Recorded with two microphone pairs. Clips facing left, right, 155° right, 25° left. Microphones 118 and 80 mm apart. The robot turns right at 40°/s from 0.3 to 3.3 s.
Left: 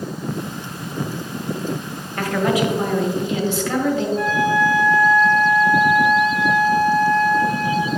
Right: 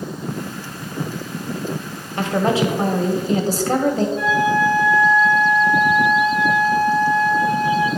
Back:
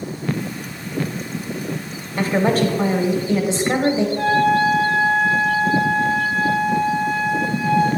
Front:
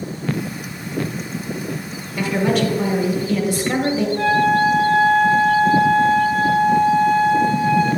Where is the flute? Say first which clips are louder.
Right 1 dB, front 2 dB; 55° left, 3 m.